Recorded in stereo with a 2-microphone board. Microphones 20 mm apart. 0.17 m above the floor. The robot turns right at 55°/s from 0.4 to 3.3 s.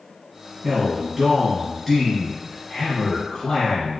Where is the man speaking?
15° right (ahead or behind), 1.0 m; by 4.0 s 20° left (ahead or behind), 1.0 m.